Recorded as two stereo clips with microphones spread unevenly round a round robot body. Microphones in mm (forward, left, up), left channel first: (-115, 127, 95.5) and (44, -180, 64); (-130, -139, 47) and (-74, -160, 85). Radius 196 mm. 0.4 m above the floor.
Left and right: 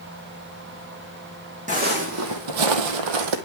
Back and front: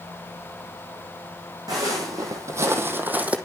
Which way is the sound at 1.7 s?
10° left.